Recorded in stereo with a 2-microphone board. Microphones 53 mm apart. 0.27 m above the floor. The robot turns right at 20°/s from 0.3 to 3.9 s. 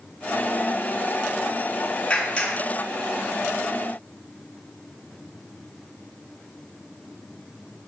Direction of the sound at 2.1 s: 25° left (ahead or behind).